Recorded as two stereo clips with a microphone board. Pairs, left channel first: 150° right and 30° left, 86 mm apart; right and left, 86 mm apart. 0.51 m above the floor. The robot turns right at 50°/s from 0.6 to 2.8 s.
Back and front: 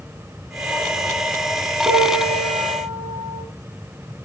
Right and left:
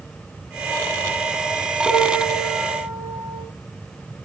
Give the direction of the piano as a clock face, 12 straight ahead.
1 o'clock.